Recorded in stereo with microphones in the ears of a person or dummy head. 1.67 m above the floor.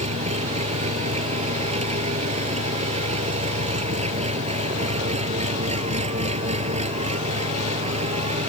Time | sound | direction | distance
0.0 | an engine running | 35° right (ahead or behind) | ?